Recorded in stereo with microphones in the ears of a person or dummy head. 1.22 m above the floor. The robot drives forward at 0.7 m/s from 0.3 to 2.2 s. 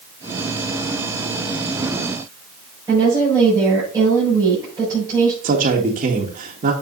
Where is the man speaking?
45° right (ahead or behind), 1.6 m.